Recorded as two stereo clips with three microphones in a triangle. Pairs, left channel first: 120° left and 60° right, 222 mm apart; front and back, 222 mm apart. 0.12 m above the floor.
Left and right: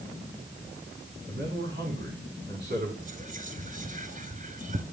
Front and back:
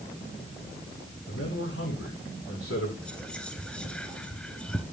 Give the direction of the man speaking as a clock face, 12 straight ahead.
12 o'clock.